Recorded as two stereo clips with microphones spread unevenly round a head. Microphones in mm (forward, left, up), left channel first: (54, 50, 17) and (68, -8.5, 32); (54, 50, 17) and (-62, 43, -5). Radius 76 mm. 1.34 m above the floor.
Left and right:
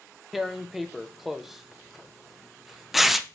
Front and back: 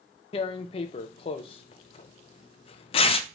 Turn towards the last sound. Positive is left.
turn(degrees=0)